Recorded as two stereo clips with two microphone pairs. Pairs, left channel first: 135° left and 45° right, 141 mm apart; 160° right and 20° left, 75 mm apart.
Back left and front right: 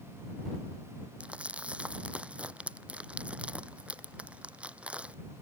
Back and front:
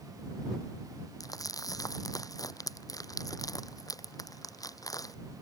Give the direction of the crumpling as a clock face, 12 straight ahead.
4 o'clock.